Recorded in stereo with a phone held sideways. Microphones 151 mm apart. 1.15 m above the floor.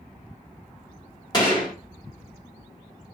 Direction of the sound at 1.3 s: 25° left (ahead or behind).